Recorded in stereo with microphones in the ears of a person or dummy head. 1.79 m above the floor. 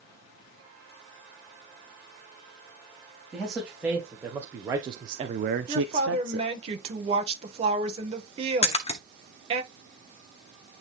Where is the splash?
35° left (ahead or behind), 0.9 m.